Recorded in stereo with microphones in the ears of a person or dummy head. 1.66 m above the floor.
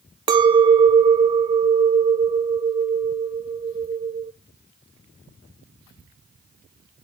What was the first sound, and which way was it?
A clink, 25° right (ahead or behind).